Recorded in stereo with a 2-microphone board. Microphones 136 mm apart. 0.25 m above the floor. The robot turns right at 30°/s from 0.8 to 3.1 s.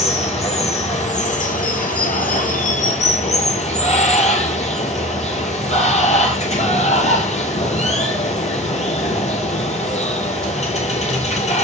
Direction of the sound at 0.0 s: 55° left.